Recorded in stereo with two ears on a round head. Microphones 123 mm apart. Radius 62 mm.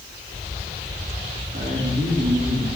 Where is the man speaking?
60° right (ahead or behind), 2.5 m.